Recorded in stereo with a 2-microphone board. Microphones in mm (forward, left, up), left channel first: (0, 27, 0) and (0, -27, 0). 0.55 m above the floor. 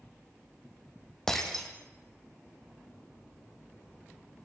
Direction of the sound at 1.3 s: 5° left (ahead or behind).